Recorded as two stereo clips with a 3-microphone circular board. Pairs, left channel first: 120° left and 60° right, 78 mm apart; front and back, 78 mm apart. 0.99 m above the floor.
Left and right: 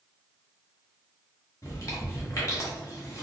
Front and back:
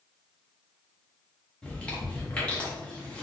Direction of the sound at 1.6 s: 75° left.